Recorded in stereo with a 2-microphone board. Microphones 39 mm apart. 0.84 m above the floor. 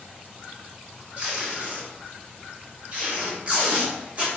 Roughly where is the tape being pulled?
Right.